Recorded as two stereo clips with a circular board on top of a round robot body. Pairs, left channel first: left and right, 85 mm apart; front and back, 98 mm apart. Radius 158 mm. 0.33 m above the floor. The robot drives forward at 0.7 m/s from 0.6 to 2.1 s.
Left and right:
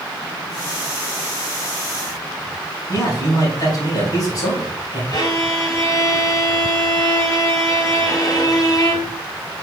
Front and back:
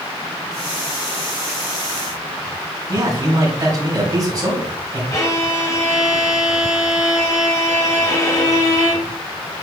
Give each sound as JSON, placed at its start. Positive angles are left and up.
{"t": 2.9, "sound": "a man speaking", "azimuth_deg": 130, "distance_m": 4.0}
{"t": 5.1, "sound": "a violin", "azimuth_deg": 55, "distance_m": 3.5}